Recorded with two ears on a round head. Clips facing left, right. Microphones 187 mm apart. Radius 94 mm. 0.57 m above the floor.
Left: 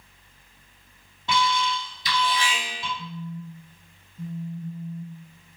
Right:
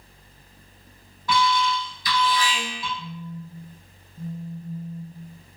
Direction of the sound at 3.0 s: 30° right (ahead or behind).